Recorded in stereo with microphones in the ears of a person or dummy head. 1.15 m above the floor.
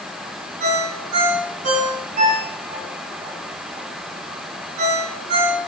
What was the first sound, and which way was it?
A ringtone, 50° right (ahead or behind).